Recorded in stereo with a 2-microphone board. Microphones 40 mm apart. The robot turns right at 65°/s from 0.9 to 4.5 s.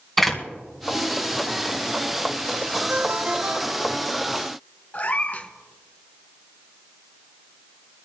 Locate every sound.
0.2 s a door slam: 5° left (ahead or behind), 2 m
2.9 s a ringtone: 85° right, 1.4 m; by 4.1 s 5° right, 1.4 m
4.9 s a cat meowing: 35° left (ahead or behind), 1.1 m